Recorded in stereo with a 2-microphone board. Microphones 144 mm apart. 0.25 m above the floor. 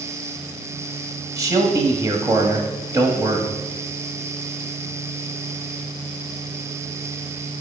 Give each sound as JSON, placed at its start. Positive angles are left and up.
{"t": 1.4, "sound": "a man speaking", "side_deg": -25, "distance_m": 1.2}